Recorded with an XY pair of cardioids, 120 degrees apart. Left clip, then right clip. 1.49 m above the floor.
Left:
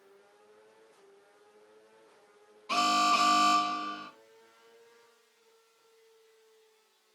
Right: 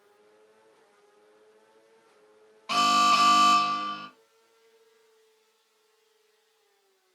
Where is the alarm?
70° right, 1.0 m.